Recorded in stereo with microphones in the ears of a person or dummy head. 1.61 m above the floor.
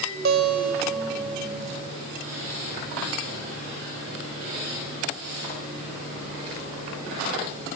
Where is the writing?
No writing in this recording.